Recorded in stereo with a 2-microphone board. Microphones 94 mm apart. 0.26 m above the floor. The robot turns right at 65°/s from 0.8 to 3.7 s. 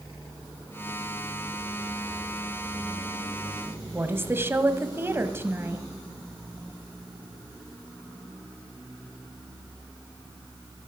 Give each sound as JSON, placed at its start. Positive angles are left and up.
{"t": 3.9, "sound": "a woman speaking", "side_deg": -25, "distance_m": 1.2}